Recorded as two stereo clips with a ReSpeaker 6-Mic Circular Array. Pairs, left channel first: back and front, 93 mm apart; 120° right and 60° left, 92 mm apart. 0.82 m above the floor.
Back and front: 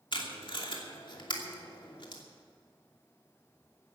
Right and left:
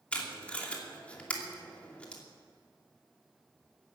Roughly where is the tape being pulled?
Behind.